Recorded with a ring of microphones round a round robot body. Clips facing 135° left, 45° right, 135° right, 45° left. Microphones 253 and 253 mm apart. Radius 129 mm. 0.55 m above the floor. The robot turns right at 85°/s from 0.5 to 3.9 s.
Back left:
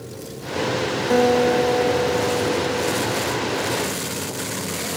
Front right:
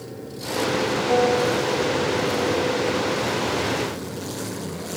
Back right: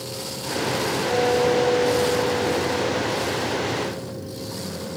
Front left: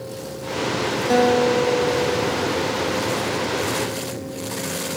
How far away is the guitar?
About 0.9 m.